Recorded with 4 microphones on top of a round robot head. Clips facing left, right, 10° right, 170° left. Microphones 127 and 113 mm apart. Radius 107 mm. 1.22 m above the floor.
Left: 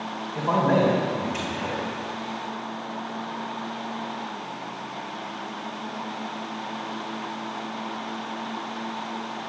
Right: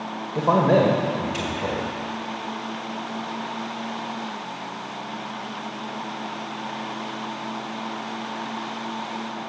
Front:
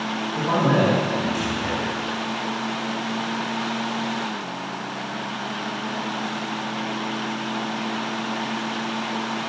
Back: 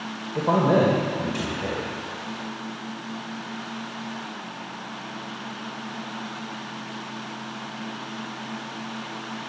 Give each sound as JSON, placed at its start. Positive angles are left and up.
{"t": 0.3, "sound": "a man speaking", "azimuth_deg": -155, "distance_m": 1.6}